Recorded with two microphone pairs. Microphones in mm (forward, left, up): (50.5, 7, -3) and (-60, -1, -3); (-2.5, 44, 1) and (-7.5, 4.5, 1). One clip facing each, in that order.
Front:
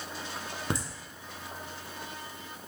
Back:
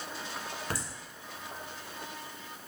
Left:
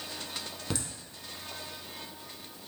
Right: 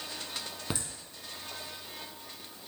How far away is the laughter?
About 1.2 m.